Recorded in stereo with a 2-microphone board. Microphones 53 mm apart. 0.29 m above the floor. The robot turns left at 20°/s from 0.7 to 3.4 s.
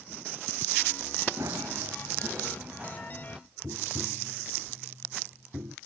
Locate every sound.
1.4 s running footsteps: 65° right (ahead or behind); by 3.4 s 10° right (ahead or behind)
3.6 s tapping: 90° right